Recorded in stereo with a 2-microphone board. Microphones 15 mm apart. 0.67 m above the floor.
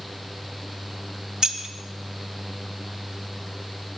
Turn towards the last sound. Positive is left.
turn(degrees=-50)  # may be behind; listen again after turning